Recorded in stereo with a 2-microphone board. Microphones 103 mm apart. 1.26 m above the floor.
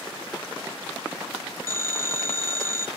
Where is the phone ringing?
35° right (ahead or behind), 1.1 m.